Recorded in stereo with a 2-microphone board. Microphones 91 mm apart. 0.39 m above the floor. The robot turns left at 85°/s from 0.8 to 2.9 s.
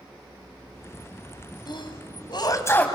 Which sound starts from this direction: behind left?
A sneeze, at 1.7 s.